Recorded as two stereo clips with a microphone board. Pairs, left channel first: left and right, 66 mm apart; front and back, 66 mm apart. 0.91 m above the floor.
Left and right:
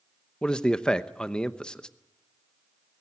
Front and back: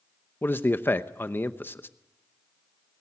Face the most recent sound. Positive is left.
turn(degrees=25)